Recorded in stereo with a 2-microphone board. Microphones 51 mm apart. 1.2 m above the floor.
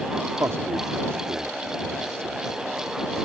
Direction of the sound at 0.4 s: 65° right (ahead or behind).